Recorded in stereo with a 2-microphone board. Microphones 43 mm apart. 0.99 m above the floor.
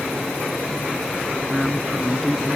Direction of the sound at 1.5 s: 10° left (ahead or behind).